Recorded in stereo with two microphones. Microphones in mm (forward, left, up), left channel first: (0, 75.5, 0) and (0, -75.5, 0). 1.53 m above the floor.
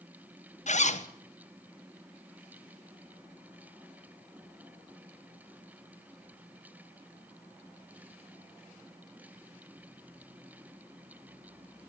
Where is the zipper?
50° left (ahead or behind), 0.8 m.